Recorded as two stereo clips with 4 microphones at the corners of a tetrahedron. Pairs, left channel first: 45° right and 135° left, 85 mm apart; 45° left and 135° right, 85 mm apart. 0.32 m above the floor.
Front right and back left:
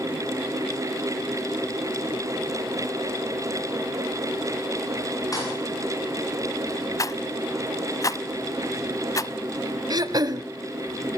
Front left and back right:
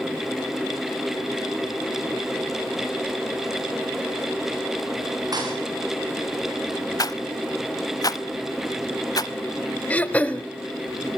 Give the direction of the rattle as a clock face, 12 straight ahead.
12 o'clock.